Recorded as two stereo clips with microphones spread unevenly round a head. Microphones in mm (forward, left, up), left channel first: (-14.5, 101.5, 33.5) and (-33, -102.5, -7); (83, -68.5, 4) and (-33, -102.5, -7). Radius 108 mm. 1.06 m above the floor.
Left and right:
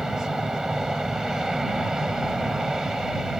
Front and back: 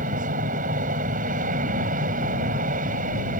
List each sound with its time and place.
0.0 s an aircraft: 175° left